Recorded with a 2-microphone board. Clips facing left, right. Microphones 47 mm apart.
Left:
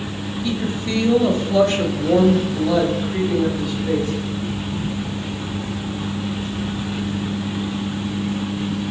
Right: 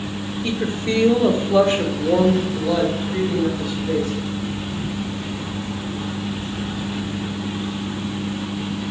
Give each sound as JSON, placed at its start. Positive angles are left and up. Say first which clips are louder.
{"t": 0.4, "sound": "a woman speaking", "louder": "right 1 dB", "side_deg": -45, "distance_m": 1.4}